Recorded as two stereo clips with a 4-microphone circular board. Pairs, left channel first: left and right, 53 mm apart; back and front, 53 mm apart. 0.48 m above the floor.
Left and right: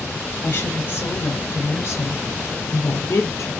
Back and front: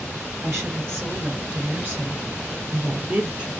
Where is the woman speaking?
35° left, 6 m; by 3.5 s 60° left, 6 m.